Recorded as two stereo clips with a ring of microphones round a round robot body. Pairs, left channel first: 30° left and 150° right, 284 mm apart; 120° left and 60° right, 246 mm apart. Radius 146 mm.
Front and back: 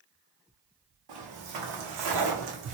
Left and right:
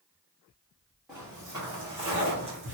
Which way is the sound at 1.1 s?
145° right.